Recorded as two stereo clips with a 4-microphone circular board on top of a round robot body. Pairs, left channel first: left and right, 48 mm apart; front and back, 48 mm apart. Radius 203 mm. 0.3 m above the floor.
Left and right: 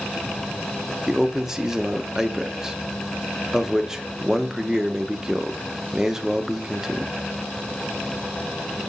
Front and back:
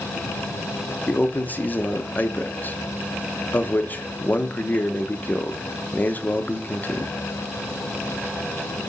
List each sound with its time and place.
1.1 s a man speaking: 15° right, 0.9 m